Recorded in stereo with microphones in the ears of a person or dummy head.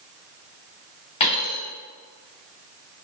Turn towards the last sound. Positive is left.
turn(degrees=25)  # may be behind; listen again after turning